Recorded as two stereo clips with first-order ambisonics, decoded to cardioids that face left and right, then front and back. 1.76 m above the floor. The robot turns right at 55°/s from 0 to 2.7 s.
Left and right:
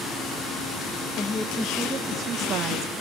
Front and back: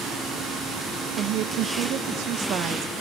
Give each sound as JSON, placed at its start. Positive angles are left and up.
{"t": 1.2, "sound": "a woman speaking", "azimuth_deg": 145, "distance_m": 1.4}